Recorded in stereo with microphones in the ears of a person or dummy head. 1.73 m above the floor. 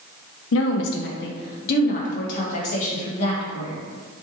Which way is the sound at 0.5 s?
65° left (ahead or behind).